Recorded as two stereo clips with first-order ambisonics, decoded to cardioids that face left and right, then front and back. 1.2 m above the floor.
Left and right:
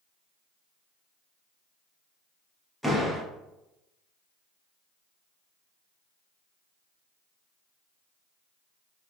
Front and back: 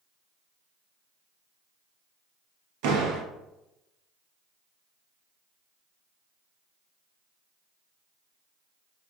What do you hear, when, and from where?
2.8 s a door slam: straight behind, 0.7 m